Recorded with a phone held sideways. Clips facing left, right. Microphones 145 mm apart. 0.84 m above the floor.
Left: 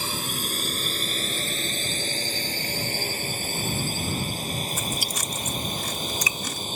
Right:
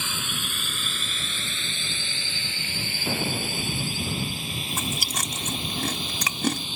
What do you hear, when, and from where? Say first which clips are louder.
0.0 s a drone: left 3 dB; 35° left (ahead or behind); by 6.8 s 40° left (ahead or behind)
3.1 s an explosion: right 4 dB; 80° right
4.7 s chewing: even; 60° right (ahead or behind)